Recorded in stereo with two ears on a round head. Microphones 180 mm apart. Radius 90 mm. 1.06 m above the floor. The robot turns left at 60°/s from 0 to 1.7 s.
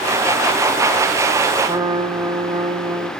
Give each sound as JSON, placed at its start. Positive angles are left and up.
{"t": 1.6, "sound": "a trumpet", "side_deg": -25, "distance_m": 1.3}